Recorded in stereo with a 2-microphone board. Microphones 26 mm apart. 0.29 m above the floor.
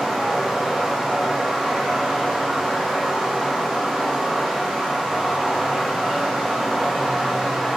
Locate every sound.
0.0 s running water: 20° right (ahead or behind), 1.6 m